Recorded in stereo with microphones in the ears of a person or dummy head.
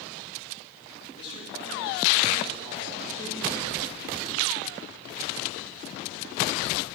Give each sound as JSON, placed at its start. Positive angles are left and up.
{"t": 1.2, "sound": "a man speaking", "side_deg": 30, "distance_m": 3.0}